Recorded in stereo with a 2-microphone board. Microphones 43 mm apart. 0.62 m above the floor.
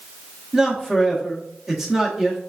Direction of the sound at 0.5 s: 10° right (ahead or behind).